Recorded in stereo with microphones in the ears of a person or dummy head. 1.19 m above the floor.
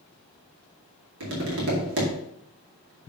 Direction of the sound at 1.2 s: 65° right (ahead or behind).